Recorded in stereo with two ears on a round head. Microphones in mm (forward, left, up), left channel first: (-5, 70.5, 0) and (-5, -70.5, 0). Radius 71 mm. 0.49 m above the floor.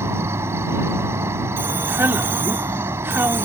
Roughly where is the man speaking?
Centre.